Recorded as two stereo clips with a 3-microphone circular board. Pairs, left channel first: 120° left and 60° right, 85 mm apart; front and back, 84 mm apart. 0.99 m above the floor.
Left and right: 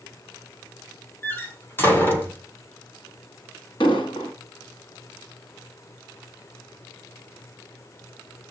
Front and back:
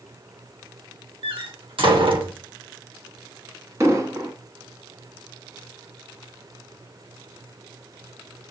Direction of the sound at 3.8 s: 130° left.